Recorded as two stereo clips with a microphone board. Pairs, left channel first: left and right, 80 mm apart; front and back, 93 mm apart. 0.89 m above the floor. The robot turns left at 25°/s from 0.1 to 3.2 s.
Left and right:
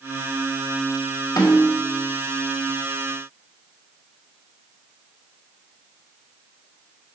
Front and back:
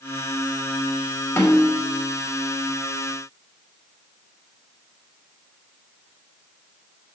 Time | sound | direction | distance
1.4 | a snare drum | 65° left | 3 m